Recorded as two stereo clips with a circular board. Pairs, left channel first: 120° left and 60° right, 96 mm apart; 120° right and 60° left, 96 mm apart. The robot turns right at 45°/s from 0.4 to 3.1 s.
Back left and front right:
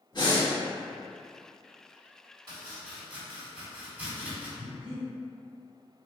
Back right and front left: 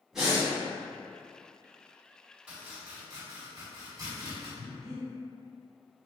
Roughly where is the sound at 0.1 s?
Behind left.